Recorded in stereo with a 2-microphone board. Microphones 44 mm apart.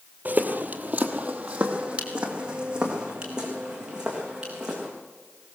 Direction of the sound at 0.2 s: 40° right (ahead or behind).